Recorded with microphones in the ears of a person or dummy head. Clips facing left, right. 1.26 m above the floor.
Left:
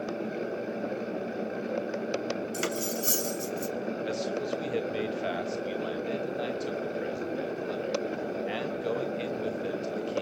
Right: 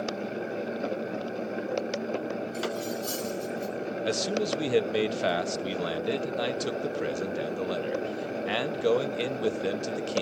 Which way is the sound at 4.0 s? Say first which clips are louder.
Right 6 dB; 65° right (ahead or behind).